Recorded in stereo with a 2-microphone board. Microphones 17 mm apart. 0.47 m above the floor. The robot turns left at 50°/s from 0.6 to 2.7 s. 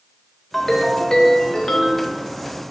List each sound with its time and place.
0.5 s a ringtone: 155° left, 0.5 m; by 2.1 s 80° left, 0.5 m